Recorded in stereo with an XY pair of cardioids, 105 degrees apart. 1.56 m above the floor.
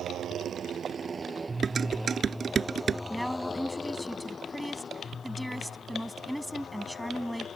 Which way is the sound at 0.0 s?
65° right.